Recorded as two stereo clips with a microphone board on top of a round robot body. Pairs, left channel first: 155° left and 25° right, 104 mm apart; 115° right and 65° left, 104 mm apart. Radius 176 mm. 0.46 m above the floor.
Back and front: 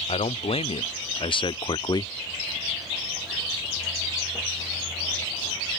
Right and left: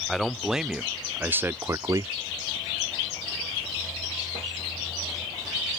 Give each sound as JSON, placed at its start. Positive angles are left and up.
{"t": 0.1, "sound": "a man speaking", "azimuth_deg": 160}